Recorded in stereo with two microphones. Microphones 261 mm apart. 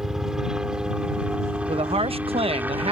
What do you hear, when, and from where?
0.0 s a helicopter: centre (ahead or behind); by 2.9 s 5° right (ahead or behind)
1.7 s a woman speaking: 20° right (ahead or behind)